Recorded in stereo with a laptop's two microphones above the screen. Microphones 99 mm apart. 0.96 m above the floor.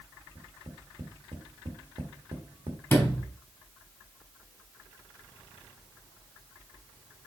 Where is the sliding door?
20° left (ahead or behind), 3.5 m.